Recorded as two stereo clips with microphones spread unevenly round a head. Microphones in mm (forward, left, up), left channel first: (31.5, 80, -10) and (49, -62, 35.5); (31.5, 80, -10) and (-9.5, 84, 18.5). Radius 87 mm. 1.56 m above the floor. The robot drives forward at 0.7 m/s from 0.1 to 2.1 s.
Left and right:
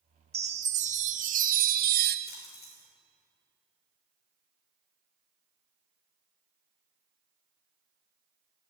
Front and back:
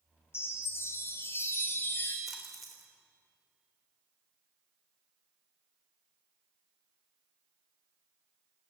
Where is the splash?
90° left, 5 m.